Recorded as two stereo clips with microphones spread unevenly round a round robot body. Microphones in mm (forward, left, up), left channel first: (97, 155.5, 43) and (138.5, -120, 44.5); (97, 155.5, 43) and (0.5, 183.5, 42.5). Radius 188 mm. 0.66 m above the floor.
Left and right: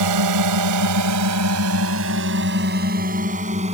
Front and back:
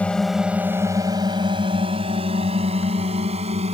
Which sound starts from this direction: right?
A drone, at 0.0 s.